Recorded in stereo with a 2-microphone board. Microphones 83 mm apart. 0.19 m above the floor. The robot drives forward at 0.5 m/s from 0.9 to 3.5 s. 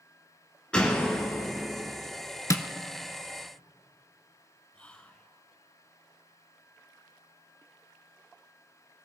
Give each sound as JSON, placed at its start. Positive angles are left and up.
{"t": 0.7, "sound": "a door slam", "side_deg": 10, "distance_m": 1.4}
{"t": 2.5, "sound": "tapping", "side_deg": 40, "distance_m": 0.6}
{"t": 4.7, "sound": "whispering", "side_deg": 15, "distance_m": 1.1}